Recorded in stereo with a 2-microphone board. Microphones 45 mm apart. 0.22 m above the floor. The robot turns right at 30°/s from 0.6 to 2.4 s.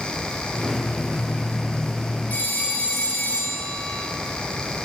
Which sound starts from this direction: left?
A phone ringing, at 2.3 s.